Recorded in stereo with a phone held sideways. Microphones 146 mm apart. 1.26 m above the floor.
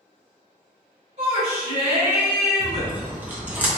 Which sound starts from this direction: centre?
Chewing, at 2.6 s.